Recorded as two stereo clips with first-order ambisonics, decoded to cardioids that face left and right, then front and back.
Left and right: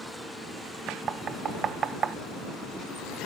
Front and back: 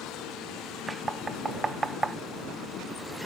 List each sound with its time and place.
0.9 s knocking: 115° right